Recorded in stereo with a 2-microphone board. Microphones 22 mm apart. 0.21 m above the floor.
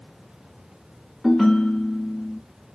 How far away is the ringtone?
About 0.9 m.